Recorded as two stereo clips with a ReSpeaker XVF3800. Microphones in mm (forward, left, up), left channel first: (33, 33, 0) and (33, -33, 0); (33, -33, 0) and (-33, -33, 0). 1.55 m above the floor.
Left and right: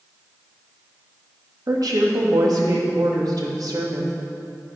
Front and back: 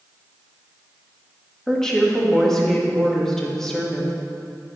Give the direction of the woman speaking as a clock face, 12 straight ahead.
3 o'clock.